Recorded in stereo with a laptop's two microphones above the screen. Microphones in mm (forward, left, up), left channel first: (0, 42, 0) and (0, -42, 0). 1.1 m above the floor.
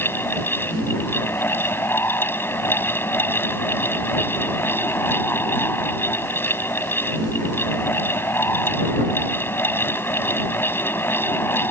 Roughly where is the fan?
Left.